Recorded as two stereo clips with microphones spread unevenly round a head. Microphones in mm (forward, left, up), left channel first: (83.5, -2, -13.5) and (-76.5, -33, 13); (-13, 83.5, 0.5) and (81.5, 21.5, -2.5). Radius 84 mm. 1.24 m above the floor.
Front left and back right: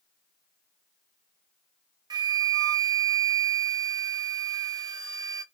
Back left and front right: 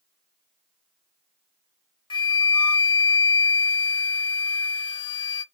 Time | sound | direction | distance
2.1 | a flute | 120° left | 0.8 m